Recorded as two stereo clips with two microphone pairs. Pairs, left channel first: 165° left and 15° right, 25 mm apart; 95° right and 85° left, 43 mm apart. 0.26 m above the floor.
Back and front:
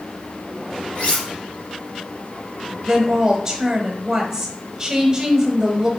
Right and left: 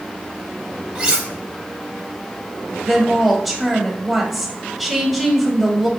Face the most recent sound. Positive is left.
turn(degrees=10)